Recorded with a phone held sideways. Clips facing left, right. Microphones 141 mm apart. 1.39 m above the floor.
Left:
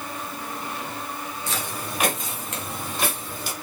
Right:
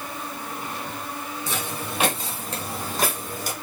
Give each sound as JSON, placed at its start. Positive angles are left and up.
{"t": 1.5, "sound": "footsteps", "side_deg": -20, "distance_m": 2.5}